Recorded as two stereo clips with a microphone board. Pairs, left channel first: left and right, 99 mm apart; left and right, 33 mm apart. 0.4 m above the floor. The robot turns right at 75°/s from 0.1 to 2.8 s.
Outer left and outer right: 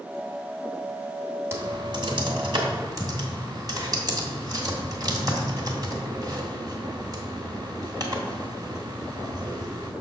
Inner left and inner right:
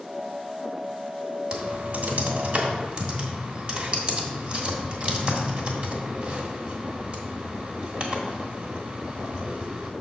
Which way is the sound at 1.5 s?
25° right (ahead or behind).